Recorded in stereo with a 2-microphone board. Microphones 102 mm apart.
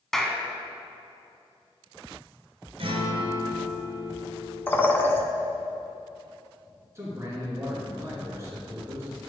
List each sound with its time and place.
0.1 s a clap: 5° left (ahead or behind), 0.8 m
2.8 s a guitar: 65° right (ahead or behind), 1.6 m
4.7 s a bird: 20° left (ahead or behind), 0.6 m
7.0 s a man speaking: 30° right (ahead or behind), 2.5 m